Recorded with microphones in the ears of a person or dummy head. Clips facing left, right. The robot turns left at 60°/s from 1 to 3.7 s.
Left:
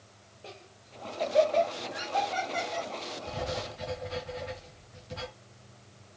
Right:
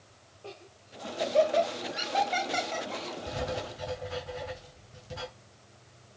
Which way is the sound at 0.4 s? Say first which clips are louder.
Right 3 dB; 20° left (ahead or behind).